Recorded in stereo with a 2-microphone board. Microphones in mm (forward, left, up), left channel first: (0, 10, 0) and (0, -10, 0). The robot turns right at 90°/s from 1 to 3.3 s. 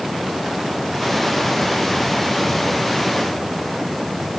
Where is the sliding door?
I don't hear a sliding door.